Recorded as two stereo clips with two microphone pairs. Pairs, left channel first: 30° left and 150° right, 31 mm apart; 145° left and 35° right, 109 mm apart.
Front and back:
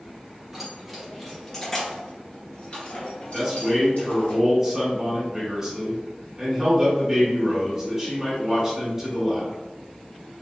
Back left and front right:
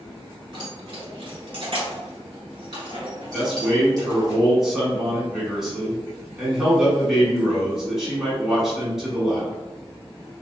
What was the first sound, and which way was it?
Keys jangling, 70° right.